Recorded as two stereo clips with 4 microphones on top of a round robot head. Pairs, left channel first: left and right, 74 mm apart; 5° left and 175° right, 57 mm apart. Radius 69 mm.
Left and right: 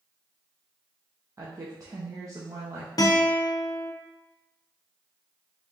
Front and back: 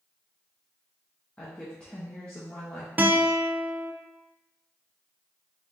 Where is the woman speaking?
60° right, 0.7 m.